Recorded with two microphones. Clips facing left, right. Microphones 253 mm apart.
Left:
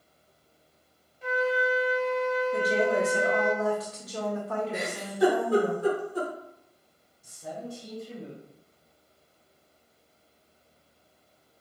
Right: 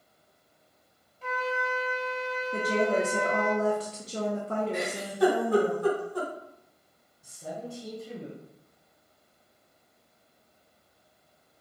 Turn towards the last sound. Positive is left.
turn(degrees=-65)  # may be behind; listen again after turning